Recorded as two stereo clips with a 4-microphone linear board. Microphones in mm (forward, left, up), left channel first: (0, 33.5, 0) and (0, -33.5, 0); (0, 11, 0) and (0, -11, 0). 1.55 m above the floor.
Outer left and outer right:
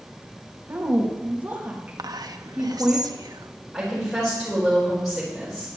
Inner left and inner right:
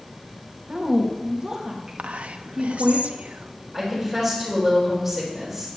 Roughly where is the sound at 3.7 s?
Centre.